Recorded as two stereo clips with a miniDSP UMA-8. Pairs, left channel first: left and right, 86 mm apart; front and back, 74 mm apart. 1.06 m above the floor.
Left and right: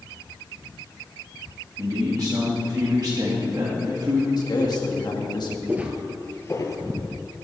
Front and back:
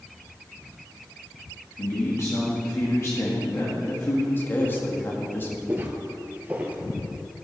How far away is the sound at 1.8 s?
About 1.8 m.